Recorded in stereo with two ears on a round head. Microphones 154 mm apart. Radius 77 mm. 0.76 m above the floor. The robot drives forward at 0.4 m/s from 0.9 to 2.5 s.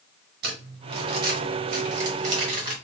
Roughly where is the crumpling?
Right.